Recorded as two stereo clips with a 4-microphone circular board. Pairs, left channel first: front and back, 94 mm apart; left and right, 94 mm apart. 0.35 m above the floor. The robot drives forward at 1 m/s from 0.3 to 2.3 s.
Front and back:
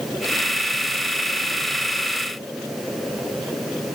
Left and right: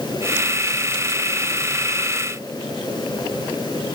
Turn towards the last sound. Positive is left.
No sound to turn to.